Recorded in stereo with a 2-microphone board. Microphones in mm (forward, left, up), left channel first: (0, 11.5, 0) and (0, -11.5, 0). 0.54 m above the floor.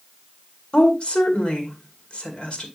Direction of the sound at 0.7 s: 55° left (ahead or behind).